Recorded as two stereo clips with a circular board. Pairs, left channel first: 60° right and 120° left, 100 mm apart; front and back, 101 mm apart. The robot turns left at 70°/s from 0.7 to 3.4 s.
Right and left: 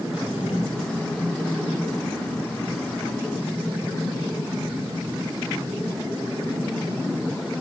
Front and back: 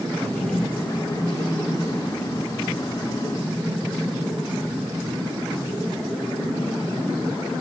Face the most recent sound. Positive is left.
turn(degrees=90)